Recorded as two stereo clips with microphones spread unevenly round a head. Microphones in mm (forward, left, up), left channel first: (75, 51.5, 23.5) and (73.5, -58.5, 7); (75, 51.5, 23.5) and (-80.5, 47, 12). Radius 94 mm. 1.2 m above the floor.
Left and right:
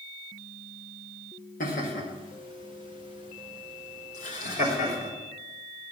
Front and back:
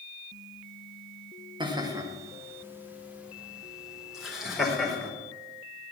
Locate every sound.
1.6 s laughter: 120° left, 1.8 m; by 5.1 s 90° left, 4.5 m